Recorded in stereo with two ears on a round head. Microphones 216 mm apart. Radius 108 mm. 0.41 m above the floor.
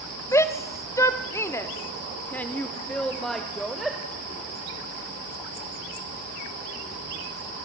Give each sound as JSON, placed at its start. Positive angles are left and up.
{"t": 0.3, "sound": "a shout", "side_deg": 10, "distance_m": 1.6}